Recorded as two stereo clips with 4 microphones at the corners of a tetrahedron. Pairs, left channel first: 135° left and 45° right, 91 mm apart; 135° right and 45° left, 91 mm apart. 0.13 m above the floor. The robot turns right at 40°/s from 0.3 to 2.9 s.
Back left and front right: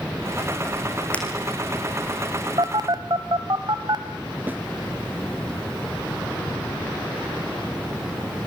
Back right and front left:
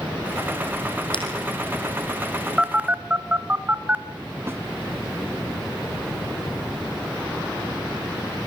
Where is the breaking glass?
150° right, 4.5 m; by 1.2 s 145° right, 4.5 m.